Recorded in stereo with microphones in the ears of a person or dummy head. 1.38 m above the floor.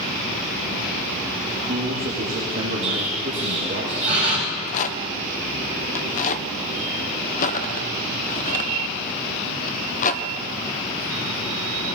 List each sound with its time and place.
1.5 s a man speaking: 60° right (ahead or behind), 2 m
2.8 s an explosion: 45° right (ahead or behind), 4.5 m
4.5 s a rattle: 50° left (ahead or behind), 0.7 m